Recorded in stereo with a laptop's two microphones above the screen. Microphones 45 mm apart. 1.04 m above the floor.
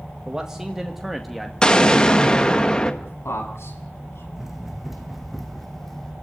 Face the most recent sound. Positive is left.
turn(degrees=10)  # may be behind; listen again after turning